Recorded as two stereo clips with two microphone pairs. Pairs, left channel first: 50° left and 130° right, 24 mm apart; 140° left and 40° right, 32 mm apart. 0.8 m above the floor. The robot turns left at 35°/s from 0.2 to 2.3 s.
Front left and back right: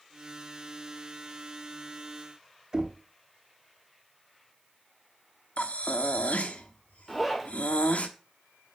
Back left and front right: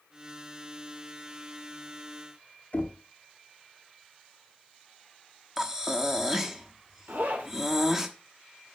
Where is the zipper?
40° right, 2 m.